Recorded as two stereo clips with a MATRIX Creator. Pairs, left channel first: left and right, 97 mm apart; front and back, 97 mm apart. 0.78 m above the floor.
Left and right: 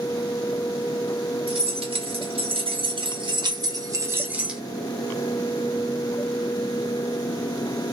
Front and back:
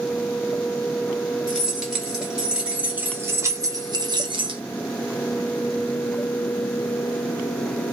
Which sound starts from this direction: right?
Keys jangling, at 1.5 s.